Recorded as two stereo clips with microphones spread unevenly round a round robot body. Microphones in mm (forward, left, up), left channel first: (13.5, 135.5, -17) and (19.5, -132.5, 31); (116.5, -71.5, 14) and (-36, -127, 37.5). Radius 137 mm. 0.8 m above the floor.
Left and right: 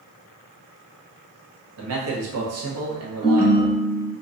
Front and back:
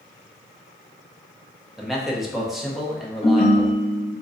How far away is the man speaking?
About 1.1 m.